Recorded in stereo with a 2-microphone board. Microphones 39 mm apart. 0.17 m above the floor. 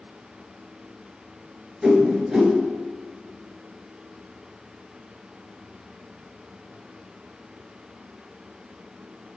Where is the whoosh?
15° right (ahead or behind), 0.9 m.